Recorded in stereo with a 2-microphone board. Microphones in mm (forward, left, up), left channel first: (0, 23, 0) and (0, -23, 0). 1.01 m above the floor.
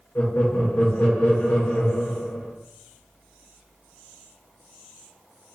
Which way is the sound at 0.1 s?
50° left (ahead or behind).